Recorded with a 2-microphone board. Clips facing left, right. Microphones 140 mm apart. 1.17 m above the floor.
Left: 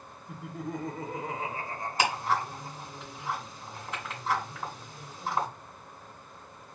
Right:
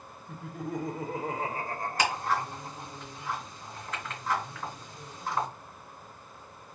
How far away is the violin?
I don't hear a violin.